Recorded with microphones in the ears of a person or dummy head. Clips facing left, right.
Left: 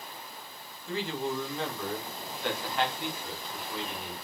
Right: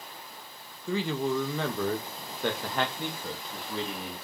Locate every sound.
0.9 s a man speaking: 75° right (ahead or behind), 2.5 m; by 4.1 s 30° right (ahead or behind), 3.5 m